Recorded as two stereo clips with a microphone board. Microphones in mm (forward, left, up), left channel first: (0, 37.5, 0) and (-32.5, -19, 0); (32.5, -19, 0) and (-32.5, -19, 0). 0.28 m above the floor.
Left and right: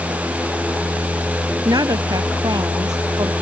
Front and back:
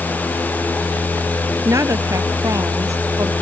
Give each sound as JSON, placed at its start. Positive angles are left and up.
{"t": 1.6, "sound": "a woman speaking", "azimuth_deg": -140}